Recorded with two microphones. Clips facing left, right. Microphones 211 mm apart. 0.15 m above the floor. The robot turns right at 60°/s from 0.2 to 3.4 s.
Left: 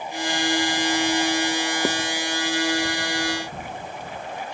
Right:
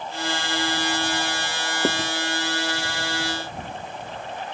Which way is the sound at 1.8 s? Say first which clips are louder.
Right 5 dB; 5° right (ahead or behind).